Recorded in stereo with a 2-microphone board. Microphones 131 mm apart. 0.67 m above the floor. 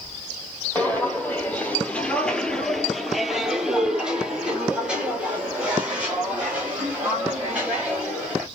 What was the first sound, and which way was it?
Footsteps, 10° left (ahead or behind).